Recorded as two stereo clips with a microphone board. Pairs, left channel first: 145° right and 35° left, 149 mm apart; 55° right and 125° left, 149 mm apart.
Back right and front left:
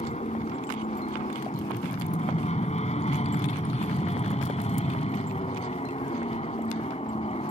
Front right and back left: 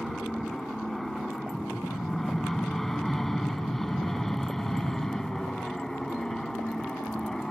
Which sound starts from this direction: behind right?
An aircraft, at 0.0 s.